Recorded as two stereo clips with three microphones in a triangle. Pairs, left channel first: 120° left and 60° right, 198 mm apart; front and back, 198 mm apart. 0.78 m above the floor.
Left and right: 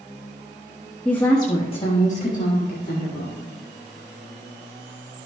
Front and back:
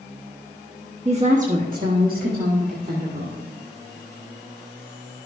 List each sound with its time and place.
1.1 s a woman speaking: 160° right, 1.0 m; by 3.4 s 150° left, 2 m